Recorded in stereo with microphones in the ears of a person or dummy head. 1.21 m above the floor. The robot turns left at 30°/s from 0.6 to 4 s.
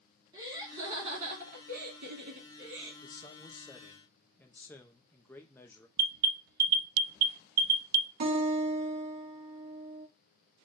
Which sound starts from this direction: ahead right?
Laughter, at 0.3 s.